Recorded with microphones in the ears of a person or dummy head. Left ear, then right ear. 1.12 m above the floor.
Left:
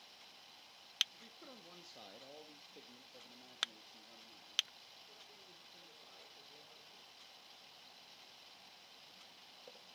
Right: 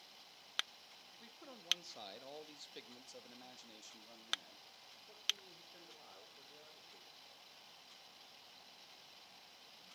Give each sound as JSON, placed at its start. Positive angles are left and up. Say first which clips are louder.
{"t": 1.1, "sound": "a man speaking", "louder": "even", "side_deg": 0, "distance_m": 1.6}